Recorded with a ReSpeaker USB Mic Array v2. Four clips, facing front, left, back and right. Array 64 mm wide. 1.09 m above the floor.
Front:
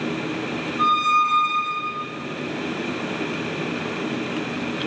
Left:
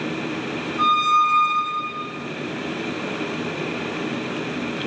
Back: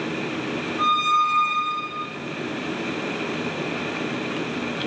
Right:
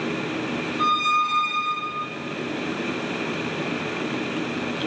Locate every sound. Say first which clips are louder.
0.8 s a squeak: left 4 dB, front 2 dB; 115° left, 1.3 m